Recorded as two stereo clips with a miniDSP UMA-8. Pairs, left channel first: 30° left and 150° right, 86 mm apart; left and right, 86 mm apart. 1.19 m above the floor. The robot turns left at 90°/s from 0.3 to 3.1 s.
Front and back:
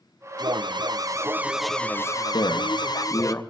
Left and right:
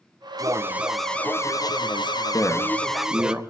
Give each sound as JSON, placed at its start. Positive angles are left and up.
{"t": 0.4, "sound": "an alarm", "azimuth_deg": -125, "distance_m": 0.7}
{"t": 2.3, "sound": "a man speaking", "azimuth_deg": 45, "distance_m": 1.8}